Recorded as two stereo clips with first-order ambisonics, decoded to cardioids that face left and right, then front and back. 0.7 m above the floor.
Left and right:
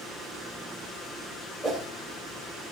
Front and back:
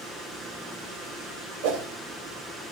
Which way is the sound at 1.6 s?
175° right.